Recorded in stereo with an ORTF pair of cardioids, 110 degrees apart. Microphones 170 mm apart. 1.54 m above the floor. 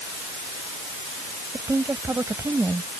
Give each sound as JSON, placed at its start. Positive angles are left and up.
{"t": 1.5, "sound": "a woman speaking", "azimuth_deg": -15}